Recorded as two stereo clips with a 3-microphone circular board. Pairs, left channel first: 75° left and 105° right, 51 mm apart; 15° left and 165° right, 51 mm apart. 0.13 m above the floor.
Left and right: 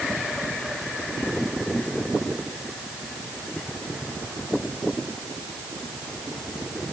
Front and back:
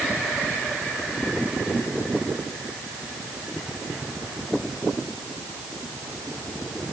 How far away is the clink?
I don't hear a clink.